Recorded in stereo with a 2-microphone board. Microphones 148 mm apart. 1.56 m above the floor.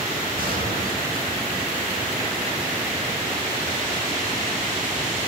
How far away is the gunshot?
About 9 m.